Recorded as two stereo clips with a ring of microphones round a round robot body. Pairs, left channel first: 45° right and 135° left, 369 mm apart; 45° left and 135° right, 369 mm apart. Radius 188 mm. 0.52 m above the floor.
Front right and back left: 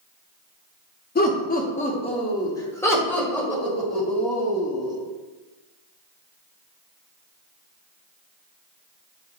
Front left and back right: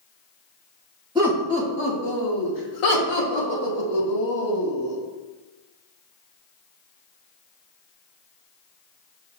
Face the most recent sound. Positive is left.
turn(degrees=45)